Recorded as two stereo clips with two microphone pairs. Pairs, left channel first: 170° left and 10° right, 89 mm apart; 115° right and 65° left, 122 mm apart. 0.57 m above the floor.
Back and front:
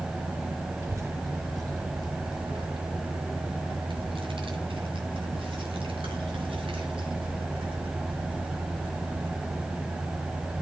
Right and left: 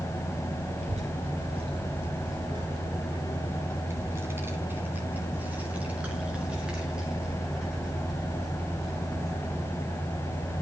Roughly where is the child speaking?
Ahead left.